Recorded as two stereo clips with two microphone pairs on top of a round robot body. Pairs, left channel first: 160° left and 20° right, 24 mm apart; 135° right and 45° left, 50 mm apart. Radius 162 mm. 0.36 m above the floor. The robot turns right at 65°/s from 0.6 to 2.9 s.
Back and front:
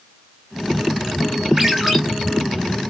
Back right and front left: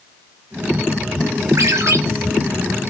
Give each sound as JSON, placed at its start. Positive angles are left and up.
{"t": 1.6, "sound": "a ringtone", "azimuth_deg": 50, "distance_m": 2.0}